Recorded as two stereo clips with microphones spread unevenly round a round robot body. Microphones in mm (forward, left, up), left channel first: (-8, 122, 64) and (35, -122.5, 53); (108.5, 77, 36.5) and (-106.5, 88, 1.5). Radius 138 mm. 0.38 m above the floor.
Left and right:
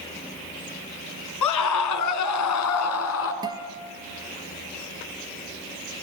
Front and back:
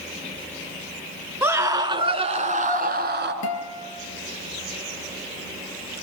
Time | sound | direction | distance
1.4 | a scream | 95° left | 4.5 m
3.4 | a guitar | 5° right | 3.5 m